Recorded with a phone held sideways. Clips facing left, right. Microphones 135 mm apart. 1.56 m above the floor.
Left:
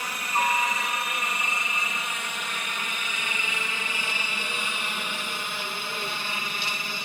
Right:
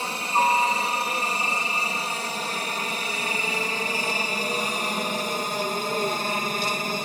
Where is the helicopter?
30° right (ahead or behind); by 7.1 s 45° right (ahead or behind).